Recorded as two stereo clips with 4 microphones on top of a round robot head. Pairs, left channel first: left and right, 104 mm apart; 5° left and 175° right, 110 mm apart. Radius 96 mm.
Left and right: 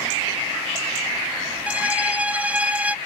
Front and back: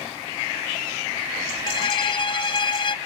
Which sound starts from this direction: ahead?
A violin, at 1.7 s.